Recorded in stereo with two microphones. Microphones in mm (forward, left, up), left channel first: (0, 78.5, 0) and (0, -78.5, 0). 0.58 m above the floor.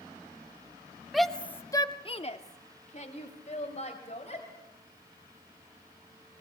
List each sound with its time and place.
1.1 s a shout: centre (ahead or behind), 1.7 m; by 4.5 s 40° left (ahead or behind), 4 m